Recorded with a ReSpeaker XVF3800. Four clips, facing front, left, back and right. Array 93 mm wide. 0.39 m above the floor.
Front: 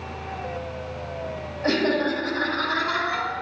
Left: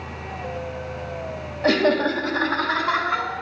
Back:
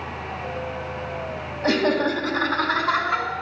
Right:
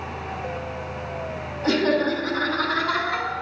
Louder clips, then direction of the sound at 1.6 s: Left 2 dB, back 2 dB; 95° left.